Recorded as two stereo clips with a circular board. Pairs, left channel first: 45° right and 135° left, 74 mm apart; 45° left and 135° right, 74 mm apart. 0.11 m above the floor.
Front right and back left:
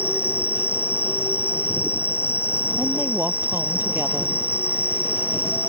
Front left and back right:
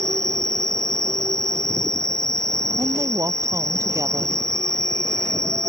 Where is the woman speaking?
170° right.